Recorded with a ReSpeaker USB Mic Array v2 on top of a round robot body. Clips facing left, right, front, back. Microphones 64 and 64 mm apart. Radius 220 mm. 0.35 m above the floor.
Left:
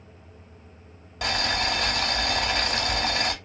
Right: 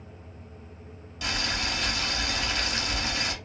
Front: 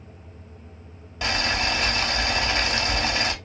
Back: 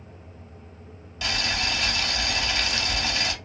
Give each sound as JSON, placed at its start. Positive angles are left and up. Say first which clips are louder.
{"t": 1.2, "sound": "boiling", "louder": "left 5 dB, front 3 dB", "azimuth_deg": 55, "distance_m": 1.7}